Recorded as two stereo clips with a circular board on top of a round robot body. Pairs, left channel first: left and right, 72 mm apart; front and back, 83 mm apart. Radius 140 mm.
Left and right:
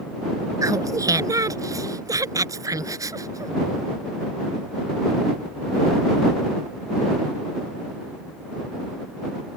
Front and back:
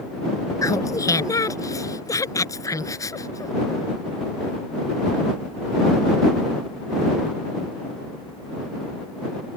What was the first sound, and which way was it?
Laughter, 50° right.